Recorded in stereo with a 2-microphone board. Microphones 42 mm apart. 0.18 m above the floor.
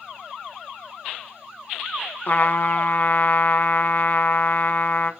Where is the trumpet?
45° left (ahead or behind), 0.5 m.